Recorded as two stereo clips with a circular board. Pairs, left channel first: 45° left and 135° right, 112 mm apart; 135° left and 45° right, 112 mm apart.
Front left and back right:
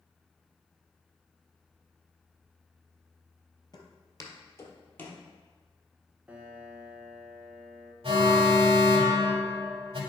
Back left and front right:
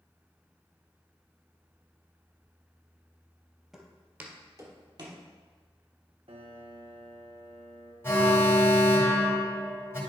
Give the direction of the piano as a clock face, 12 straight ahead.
2 o'clock.